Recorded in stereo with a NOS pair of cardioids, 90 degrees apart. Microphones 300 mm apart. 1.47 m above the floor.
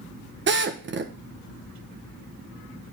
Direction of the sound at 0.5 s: 35° right.